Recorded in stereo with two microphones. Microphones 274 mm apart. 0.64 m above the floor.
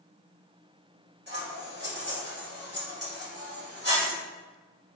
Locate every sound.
1.3 s scissors: 35° right (ahead or behind), 1.4 m